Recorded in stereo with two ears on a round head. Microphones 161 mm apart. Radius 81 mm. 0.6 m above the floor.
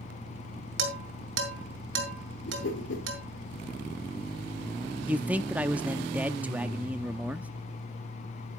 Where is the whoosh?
70° left (ahead or behind), 3 m.